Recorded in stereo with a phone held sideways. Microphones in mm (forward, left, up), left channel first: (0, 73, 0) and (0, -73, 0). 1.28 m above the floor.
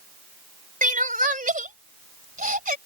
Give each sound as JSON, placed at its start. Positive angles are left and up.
{"t": 0.8, "sound": "crying", "side_deg": -70}